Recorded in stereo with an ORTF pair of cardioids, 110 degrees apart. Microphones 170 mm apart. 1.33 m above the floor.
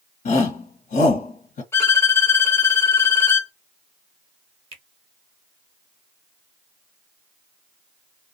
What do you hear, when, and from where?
0.2 s a shout: 60° left, 1.2 m
1.7 s a violin: 15° left, 0.8 m
4.7 s a finger snap: 35° right, 1.0 m